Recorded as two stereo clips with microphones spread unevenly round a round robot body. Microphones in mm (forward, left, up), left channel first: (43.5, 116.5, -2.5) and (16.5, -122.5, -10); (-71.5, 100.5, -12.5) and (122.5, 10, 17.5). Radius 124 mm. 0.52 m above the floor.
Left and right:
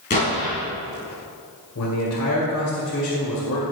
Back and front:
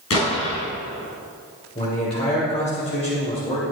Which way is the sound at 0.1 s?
145° left.